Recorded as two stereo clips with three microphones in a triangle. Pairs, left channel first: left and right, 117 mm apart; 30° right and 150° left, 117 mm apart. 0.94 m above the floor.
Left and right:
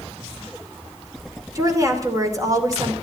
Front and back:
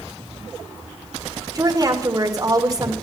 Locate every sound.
1.6 s a woman speaking: 150° right, 2.5 m